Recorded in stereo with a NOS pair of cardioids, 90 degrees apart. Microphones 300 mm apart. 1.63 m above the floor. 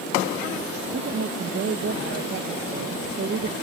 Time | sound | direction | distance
0.9 | a woman speaking | 45° right | ?